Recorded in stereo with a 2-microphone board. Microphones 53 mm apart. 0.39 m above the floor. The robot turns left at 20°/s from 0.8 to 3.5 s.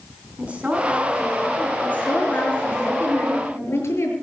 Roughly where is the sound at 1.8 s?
Behind left.